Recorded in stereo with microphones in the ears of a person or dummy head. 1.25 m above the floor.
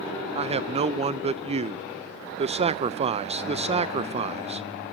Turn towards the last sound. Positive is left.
turn(degrees=-35)  # may be behind; listen again after turning